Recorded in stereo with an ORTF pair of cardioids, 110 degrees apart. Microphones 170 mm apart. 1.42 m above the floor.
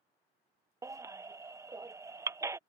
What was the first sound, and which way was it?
A baby crying, 15° right.